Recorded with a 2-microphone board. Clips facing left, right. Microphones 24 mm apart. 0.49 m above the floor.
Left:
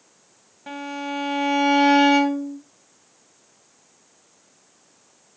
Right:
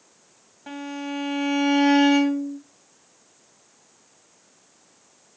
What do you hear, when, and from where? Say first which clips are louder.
0.7 s a violin: left 2 dB; 10° left (ahead or behind), 0.5 m